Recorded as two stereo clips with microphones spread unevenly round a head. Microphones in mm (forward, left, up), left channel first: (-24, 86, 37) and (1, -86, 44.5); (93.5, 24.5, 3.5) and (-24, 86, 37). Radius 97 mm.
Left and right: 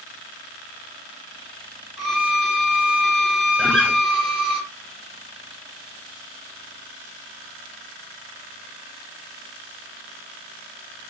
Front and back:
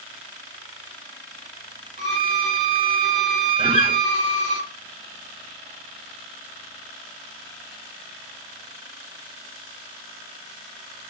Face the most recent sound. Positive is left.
turn(degrees=180)